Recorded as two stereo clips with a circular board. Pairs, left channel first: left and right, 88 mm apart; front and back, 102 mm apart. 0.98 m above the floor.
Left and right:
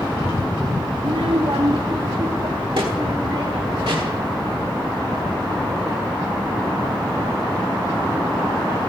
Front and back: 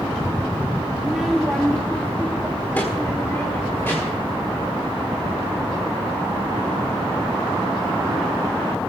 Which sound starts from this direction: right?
A child speaking, at 1.0 s.